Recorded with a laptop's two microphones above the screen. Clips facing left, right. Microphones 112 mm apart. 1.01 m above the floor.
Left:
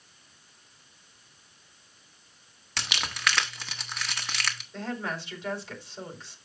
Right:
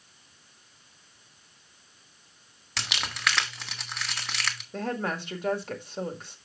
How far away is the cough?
No cough in this recording.